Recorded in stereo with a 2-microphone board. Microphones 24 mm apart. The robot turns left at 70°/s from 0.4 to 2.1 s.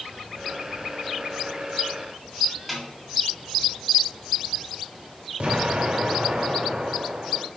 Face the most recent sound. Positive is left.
turn(degrees=-55)  # may be behind; listen again after turning